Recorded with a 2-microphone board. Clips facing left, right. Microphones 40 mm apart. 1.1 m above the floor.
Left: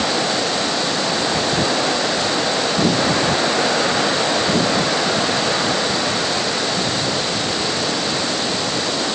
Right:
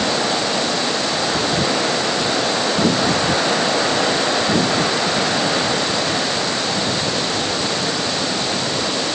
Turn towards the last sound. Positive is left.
No sound to turn to.